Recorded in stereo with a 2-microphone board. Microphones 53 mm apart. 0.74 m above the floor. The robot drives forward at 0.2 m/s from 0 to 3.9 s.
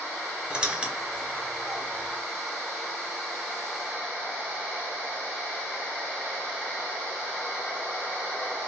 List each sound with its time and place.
0.5 s a squeak: 25° right (ahead or behind), 0.6 m; by 2.2 s 15° right (ahead or behind), 0.9 m